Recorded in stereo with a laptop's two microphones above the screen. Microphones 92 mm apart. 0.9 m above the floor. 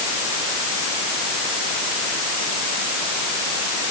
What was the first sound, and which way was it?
Only background noise.